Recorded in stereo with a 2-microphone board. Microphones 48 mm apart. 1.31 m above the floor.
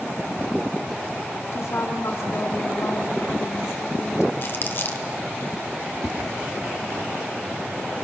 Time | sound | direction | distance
1.5 | a woman speaking | 80° left | 3 m
4.4 | crumpling | 50° left (ahead or behind) | 1.5 m
6.0 | a whoosh | 10° left (ahead or behind) | 2.5 m